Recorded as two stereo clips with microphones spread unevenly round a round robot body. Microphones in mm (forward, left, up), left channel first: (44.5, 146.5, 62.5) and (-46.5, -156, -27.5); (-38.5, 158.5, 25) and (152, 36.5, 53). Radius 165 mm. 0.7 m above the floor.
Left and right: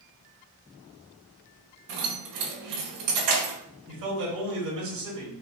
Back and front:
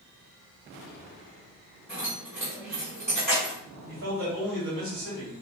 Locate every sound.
1.9 s keys jangling: 130° right, 2 m
3.9 s a man speaking: 85° right, 2 m